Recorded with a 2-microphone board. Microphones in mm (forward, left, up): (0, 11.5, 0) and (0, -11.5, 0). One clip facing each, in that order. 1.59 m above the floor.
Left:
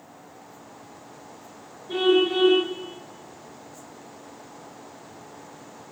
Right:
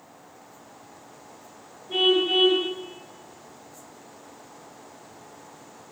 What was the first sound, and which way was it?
A car horn, 45° left (ahead or behind).